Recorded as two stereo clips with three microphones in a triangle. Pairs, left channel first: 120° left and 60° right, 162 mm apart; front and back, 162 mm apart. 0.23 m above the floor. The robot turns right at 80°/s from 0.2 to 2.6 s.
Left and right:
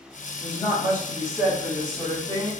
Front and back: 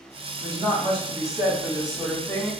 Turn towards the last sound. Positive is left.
turn(degrees=-40)